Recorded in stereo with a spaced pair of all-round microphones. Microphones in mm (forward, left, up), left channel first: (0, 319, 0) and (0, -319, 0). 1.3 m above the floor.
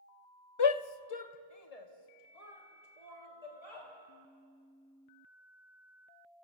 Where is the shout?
40° left (ahead or behind), 0.6 m; by 3.9 s 55° left (ahead or behind), 4 m.